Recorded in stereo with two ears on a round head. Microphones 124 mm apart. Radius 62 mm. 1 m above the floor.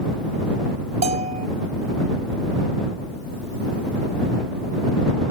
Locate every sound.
1.0 s a bell: 50° right (ahead or behind)